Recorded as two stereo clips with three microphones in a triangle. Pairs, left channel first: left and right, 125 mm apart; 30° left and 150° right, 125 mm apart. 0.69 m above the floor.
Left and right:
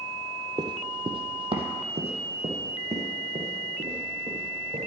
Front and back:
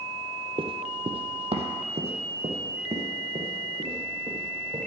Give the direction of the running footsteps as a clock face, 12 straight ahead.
4 o'clock.